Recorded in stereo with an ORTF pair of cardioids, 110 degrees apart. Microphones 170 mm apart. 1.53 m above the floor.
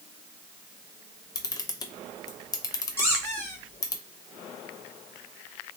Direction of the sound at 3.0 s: 15° left.